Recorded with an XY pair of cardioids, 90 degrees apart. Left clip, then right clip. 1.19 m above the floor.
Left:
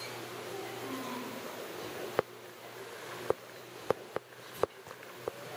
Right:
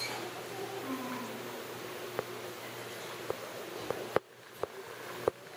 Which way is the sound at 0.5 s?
15° right.